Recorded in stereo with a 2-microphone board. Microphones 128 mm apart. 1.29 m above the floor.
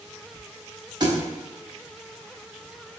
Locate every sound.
1.0 s a thud: 35° right (ahead or behind), 0.9 m